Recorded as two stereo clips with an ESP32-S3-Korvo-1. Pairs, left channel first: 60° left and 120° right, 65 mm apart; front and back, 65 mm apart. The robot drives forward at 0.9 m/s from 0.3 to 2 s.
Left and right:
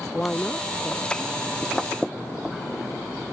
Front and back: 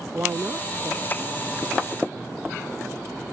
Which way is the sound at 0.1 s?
130° left.